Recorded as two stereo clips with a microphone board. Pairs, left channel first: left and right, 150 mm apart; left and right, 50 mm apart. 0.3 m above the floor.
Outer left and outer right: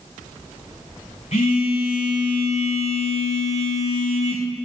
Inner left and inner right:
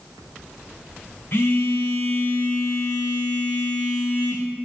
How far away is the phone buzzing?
About 4.5 m.